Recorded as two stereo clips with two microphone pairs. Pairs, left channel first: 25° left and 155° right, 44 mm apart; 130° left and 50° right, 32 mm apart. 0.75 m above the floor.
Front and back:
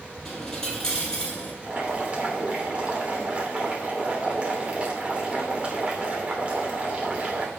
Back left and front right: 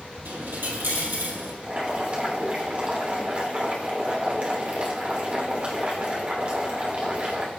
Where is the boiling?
95° right, 3 m.